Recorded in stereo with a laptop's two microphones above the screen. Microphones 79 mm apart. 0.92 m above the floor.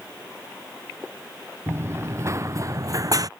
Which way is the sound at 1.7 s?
35° right (ahead or behind).